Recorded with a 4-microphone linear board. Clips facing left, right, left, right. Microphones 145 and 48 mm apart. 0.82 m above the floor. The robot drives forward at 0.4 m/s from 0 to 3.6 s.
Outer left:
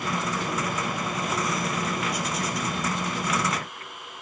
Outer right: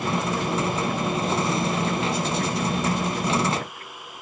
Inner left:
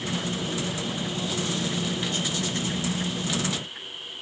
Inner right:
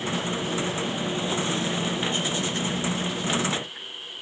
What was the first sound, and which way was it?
Only background noise.